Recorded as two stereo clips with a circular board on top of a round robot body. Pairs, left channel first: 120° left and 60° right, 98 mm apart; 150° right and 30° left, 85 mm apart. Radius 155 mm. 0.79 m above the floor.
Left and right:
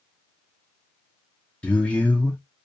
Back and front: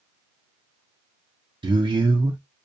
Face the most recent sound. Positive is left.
turn(degrees=40)